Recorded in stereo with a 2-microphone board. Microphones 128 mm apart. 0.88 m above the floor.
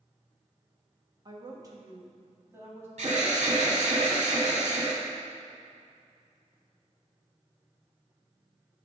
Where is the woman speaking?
35° right (ahead or behind), 1.2 m; by 2.9 s 20° right (ahead or behind), 2 m.